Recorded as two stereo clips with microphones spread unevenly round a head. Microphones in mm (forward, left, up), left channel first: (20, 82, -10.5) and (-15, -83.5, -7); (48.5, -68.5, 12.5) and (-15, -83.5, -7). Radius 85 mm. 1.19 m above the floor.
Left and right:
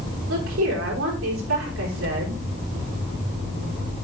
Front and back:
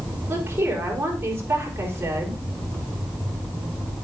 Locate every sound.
0.3 s a woman speaking: 115° right, 5 m